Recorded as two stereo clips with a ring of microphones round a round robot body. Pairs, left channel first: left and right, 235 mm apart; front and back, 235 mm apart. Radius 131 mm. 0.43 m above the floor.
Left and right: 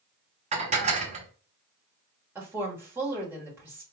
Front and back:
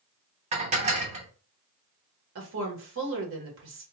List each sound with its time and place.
0.5 s dishes clattering: 135° right, 0.8 m
2.4 s a woman speaking: 170° right, 1.2 m